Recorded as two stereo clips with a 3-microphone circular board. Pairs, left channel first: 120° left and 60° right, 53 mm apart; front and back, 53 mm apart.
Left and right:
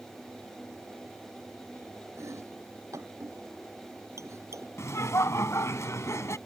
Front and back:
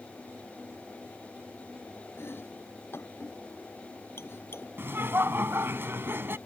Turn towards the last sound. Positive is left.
turn(degrees=140)